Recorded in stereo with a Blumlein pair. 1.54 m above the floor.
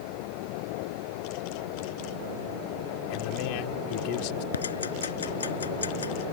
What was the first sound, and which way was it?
A man speaking, 45° left.